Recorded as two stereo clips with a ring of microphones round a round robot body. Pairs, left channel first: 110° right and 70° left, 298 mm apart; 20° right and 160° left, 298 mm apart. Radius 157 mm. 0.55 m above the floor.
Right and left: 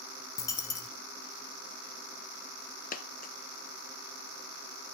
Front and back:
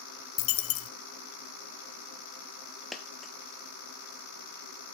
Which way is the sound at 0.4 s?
35° right.